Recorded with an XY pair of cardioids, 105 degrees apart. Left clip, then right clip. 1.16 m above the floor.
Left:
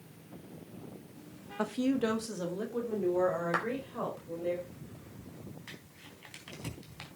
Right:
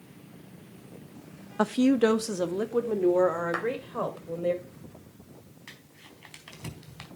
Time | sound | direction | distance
1.6 | a woman speaking | 50° right | 0.9 m
3.5 | a clap | 5° right | 4 m
5.7 | crumpling | 20° right | 4 m